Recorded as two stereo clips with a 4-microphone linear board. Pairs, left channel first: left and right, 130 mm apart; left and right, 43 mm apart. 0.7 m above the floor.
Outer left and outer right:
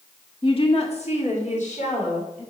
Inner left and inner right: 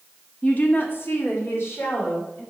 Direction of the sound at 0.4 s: 40° left (ahead or behind).